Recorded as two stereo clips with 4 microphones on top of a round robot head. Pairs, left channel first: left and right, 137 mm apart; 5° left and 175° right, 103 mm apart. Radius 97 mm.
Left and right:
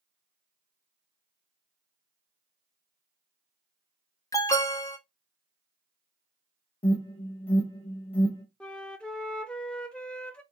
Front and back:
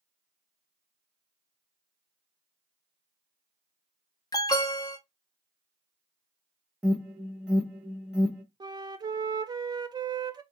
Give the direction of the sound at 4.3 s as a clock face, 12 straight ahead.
11 o'clock.